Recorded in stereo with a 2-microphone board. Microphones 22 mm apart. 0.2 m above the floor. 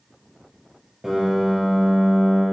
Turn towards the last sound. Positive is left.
turn(degrees=0)  # may be behind; listen again after turning